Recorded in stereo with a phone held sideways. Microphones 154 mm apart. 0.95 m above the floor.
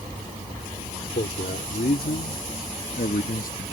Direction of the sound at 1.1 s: 85° left.